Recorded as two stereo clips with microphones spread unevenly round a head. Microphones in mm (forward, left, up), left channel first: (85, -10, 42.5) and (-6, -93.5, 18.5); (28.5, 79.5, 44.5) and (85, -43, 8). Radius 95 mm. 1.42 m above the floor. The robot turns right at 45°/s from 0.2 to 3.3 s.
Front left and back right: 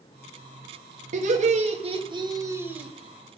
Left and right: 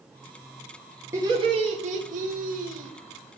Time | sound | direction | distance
1.1 | laughter | 135° right | 1.4 m